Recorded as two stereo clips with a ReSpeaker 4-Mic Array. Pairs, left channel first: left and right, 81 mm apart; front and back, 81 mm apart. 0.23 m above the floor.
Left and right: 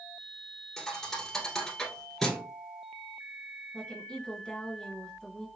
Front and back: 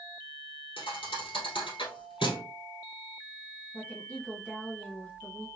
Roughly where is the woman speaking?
Ahead left.